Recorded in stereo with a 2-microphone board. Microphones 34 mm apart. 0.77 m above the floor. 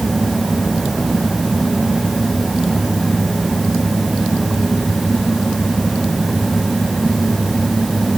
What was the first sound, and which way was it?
Only background noise.